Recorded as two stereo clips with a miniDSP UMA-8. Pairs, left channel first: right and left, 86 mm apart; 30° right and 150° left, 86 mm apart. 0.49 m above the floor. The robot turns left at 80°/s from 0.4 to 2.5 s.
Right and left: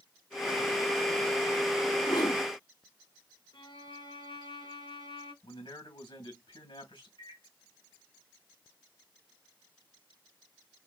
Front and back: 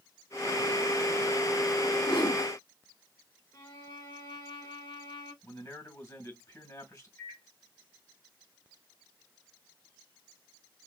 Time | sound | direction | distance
2.1 | a whoosh | 45° right | 1.9 m
3.5 | a violin | 65° right | 3 m
5.4 | a man speaking | 80° right | 3 m
7.2 | a microwave | 85° right | 2.5 m